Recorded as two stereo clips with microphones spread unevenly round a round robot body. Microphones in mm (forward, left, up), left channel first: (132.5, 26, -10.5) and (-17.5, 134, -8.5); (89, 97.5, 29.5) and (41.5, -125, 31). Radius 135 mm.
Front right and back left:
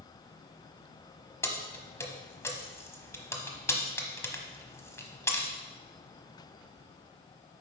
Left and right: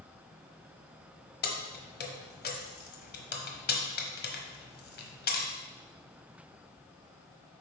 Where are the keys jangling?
40° left, 1.2 m.